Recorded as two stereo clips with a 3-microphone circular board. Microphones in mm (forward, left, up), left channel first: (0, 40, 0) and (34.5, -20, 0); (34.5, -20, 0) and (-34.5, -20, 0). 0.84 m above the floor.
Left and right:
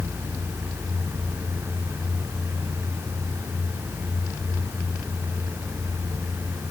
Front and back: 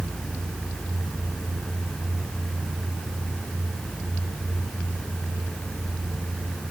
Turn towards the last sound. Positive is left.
No sound to turn to.